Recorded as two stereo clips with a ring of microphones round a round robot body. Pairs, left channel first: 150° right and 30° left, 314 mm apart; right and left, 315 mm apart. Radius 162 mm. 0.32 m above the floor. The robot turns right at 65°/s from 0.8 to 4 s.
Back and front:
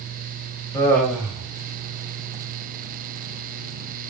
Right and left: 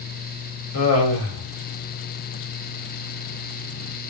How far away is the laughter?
About 1.6 m.